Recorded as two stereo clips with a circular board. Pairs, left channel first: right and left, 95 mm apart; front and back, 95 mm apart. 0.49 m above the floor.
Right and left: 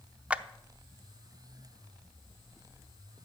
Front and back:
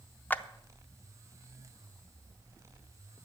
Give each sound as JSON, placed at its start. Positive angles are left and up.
{"t": 0.3, "sound": "a clap", "azimuth_deg": 35, "distance_m": 0.6}